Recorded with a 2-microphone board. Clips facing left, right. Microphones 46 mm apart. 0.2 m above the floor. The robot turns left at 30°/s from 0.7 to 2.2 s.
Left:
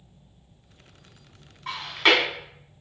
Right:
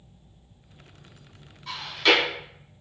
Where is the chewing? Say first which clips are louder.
Left 1 dB; 50° left (ahead or behind), 0.7 m; by 2.2 s 45° left (ahead or behind), 0.7 m.